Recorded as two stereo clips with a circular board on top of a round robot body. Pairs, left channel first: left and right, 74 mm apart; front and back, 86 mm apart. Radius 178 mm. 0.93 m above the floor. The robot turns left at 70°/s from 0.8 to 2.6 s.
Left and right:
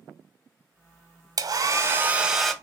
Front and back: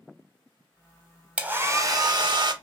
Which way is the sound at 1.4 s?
105° right.